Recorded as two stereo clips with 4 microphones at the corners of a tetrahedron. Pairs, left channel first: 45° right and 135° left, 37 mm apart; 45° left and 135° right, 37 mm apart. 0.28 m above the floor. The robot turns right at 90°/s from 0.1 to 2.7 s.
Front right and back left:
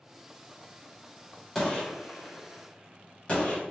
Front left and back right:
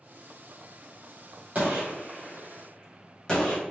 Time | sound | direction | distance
1.6 | a gunshot | 120° right | 1.8 m